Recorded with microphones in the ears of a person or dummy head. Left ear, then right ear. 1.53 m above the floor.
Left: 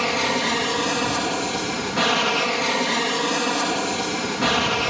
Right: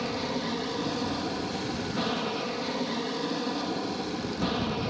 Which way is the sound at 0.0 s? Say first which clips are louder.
Left 10 dB; 55° left (ahead or behind).